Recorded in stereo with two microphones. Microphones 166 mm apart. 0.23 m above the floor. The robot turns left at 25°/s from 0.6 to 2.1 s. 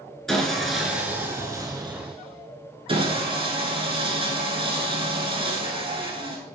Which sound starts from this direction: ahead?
Sawing, at 0.3 s.